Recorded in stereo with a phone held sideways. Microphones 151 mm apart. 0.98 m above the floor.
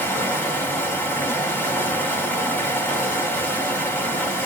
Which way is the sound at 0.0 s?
15° left (ahead or behind).